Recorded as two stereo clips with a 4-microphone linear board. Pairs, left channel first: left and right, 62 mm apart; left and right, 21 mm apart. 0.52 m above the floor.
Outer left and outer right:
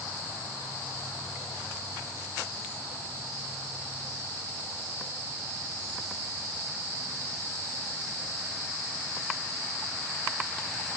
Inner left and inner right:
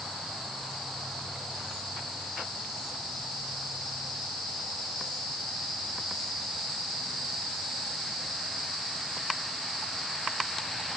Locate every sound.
Only background noise.